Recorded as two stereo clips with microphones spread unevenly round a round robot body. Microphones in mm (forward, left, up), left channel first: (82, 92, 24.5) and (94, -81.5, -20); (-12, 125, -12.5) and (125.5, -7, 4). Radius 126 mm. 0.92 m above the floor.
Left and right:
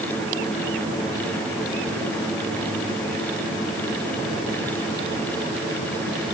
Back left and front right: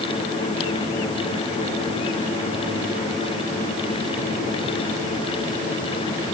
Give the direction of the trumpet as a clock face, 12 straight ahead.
I don't hear a trumpet.